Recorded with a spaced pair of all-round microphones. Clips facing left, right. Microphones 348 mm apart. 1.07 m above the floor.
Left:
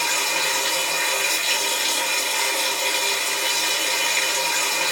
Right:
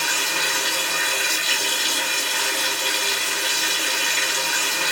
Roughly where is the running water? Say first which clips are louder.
Left 1 dB; right.